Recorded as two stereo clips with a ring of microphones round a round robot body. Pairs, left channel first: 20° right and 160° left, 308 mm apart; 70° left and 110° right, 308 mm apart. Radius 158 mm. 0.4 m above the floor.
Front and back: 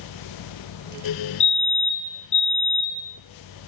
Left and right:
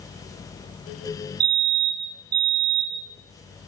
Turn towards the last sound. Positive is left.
turn(degrees=-90)